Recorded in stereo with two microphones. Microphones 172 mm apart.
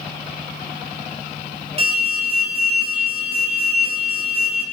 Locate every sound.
1.8 s an alarm: 35° right (ahead or behind), 4.5 m